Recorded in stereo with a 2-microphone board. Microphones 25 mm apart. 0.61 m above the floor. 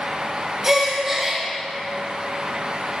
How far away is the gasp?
About 3 m.